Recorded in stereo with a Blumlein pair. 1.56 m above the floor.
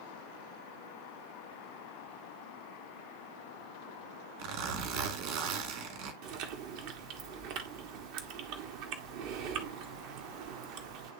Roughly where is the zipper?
Ahead right.